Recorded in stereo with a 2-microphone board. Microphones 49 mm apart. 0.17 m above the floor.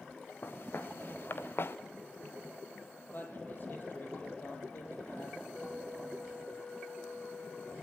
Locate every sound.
0.4 s footsteps: 45° left (ahead or behind), 2.5 m; by 1.8 s 50° left (ahead or behind), 1.0 m
3.1 s a man speaking: 40° left (ahead or behind), 4.5 m
5.5 s a flute: 15° left (ahead or behind), 4.5 m